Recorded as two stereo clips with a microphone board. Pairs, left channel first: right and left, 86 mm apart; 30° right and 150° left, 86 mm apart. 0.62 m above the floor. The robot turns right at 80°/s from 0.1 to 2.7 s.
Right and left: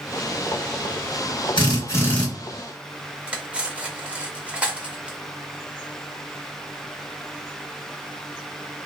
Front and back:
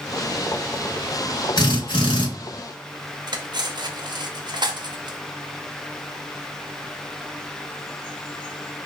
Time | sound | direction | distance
1.6 | a drill | 65° right | 1.3 m
3.3 | cutlery clinking | 165° left | 0.5 m